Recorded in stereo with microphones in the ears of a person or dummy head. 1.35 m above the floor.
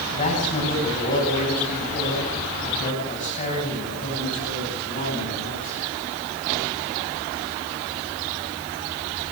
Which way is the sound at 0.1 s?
45° left (ahead or behind).